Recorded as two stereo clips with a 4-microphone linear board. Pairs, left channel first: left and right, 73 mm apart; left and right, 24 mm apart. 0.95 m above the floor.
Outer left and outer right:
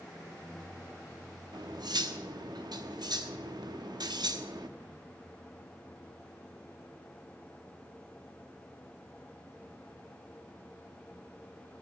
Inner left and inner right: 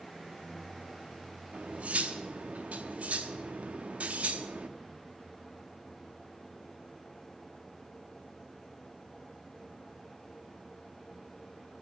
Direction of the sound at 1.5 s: 70° right (ahead or behind).